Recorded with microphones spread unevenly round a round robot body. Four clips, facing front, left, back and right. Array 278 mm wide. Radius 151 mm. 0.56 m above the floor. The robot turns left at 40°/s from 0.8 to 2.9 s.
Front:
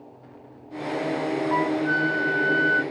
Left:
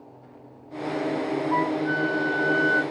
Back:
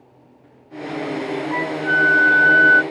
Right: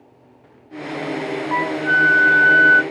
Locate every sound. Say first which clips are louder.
1.5 s a flute: right 7 dB, back 3 dB; 60° right, 0.7 m; by 2.8 s 115° right, 0.7 m